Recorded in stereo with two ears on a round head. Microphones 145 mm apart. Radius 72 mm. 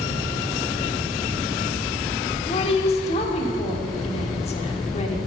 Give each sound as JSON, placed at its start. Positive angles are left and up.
{"t": 2.5, "sound": "a woman speaking", "side_deg": 40, "distance_m": 1.3}